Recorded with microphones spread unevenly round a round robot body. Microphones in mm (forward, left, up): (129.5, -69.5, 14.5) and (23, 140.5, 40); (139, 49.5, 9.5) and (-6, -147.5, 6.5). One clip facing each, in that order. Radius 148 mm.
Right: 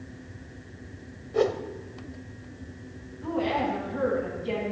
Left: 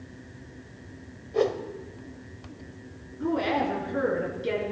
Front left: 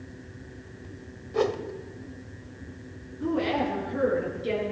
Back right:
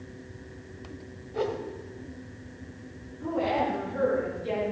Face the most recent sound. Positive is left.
turn(degrees=115)